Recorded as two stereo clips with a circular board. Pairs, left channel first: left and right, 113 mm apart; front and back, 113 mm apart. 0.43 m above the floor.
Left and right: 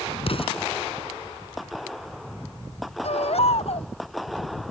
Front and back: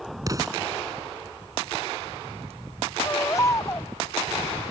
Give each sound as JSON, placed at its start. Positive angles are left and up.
{"t": 0.3, "sound": "an explosion", "azimuth_deg": 120}
{"t": 3.0, "sound": "a baby crying", "azimuth_deg": 65}